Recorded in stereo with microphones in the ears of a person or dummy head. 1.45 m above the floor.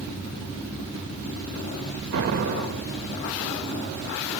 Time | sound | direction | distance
2.1 | an explosion | 60° right (ahead or behind) | 1.5 m